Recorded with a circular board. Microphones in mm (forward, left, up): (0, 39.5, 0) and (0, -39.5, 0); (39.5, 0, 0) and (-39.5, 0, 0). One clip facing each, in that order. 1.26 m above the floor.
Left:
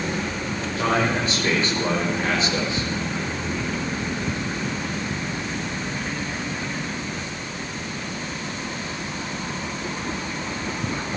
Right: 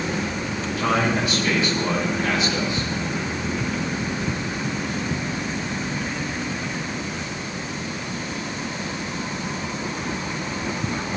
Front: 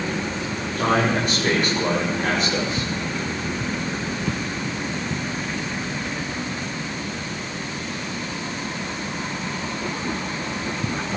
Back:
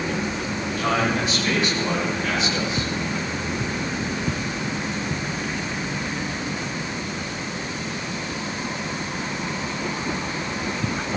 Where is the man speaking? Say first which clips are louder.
Even, front 3 dB; 40° left, 6.5 m.